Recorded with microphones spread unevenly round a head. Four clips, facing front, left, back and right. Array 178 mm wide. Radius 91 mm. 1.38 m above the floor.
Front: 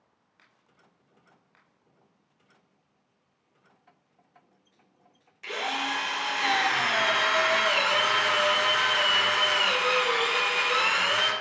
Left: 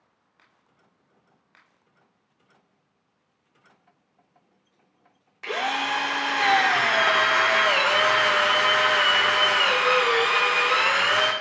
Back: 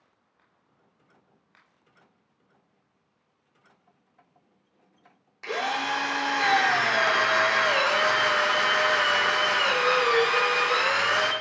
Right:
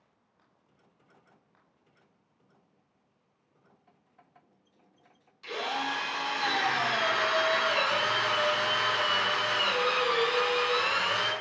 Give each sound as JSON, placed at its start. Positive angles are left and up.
{"t": 5.4, "sound": "a drill", "azimuth_deg": 115, "distance_m": 1.2}